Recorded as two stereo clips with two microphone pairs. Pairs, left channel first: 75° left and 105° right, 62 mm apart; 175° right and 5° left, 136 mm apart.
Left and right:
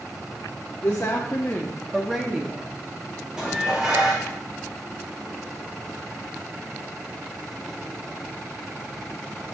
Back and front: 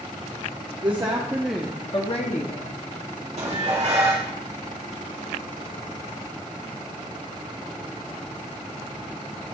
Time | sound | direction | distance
0.8 | a woman speaking | 50° left | 1.0 m
3.4 | dishes clattering | 25° right | 1.8 m